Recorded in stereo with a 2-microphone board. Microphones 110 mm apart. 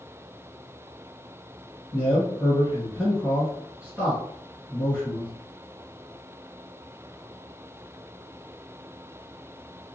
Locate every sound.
1.9 s a man speaking: 5° left (ahead or behind), 1.8 m